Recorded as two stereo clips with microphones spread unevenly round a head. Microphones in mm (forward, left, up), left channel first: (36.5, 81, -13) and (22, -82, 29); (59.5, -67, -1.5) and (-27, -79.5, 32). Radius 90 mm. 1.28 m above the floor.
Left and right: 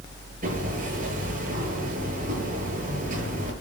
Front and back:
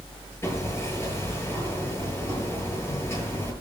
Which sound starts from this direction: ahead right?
Hammering, at 0.4 s.